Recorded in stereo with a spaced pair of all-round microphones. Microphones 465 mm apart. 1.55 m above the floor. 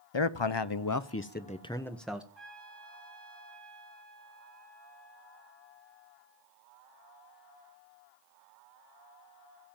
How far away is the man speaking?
About 0.9 m.